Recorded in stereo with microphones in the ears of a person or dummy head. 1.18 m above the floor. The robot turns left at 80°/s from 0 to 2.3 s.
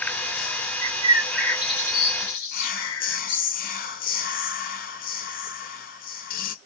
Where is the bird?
40° right (ahead or behind), 0.7 m; by 3.4 s 70° left (ahead or behind), 0.7 m.